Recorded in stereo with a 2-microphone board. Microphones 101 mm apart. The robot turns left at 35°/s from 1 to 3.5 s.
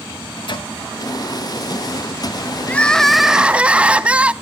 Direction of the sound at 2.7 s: 15° left (ahead or behind).